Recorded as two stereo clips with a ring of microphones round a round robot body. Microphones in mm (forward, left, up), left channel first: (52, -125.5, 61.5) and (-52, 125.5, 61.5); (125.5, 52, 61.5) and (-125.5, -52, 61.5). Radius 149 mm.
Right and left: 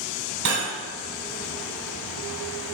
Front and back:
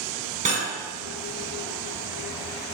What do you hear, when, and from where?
0.5 s cutlery clinking: 140° left, 1.5 m